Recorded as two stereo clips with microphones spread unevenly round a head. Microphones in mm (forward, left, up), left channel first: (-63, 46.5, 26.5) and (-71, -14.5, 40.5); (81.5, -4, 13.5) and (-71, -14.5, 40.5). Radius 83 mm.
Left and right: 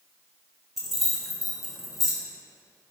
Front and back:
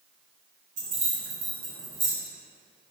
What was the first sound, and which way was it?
Keys jangling, straight behind.